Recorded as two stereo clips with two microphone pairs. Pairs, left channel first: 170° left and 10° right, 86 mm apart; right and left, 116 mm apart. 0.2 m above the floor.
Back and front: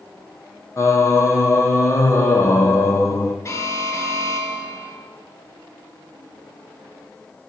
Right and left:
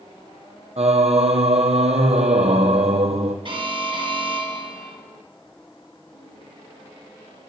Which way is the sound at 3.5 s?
125° left.